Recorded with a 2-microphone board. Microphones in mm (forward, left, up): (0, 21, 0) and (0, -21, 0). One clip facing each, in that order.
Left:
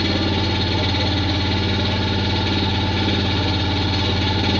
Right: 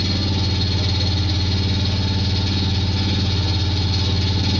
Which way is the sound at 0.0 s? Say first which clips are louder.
Left 4 dB; 30° left (ahead or behind).